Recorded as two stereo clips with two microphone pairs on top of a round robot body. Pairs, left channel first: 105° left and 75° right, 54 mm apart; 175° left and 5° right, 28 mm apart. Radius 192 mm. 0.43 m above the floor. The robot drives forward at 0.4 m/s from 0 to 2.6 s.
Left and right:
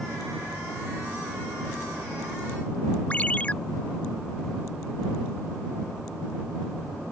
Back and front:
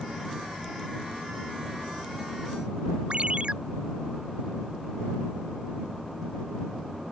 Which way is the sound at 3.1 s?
40° left.